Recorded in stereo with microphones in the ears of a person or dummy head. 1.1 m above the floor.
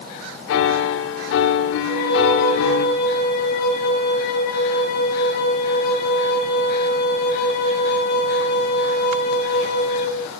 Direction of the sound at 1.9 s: 50° left (ahead or behind).